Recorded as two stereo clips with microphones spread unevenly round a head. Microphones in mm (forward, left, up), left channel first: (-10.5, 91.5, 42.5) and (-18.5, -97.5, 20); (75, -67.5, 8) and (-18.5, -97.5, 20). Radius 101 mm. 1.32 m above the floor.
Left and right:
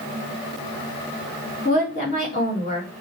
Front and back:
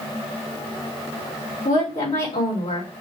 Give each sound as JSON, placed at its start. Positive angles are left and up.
{"t": 1.6, "sound": "a woman speaking", "azimuth_deg": 35, "distance_m": 3.5}